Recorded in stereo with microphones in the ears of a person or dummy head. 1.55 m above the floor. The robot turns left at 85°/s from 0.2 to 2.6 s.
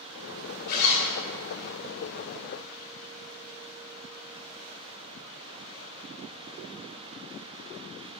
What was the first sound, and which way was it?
A zipper, 65° left.